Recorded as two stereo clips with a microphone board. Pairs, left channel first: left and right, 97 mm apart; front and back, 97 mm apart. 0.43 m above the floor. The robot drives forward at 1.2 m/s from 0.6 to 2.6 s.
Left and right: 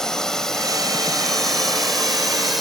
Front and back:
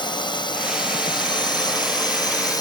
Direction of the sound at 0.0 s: 10° left.